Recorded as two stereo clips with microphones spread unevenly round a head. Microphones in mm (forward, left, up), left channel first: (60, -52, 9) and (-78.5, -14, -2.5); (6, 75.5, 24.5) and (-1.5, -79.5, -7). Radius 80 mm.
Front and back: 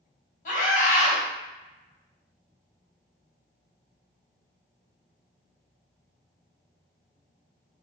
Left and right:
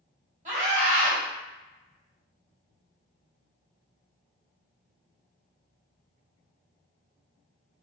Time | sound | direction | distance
0.5 | a scream | 45° right | 1.6 m